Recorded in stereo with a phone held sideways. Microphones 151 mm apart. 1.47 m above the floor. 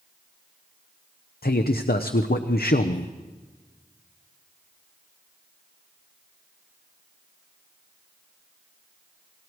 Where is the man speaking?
85° left, 0.8 m.